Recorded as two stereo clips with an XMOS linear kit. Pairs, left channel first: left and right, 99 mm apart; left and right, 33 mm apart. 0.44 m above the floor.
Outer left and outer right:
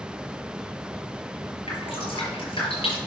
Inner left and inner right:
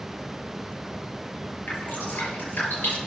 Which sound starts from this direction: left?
Dripping, at 1.7 s.